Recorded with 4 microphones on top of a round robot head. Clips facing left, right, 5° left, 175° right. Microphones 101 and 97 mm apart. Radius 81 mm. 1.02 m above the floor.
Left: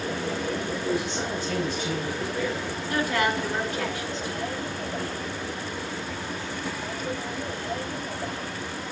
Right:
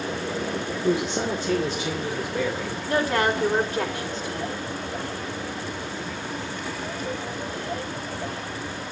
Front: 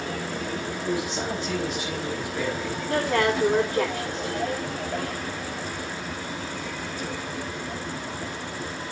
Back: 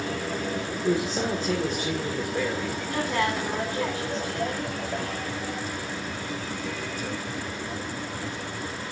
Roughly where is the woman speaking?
Ahead right.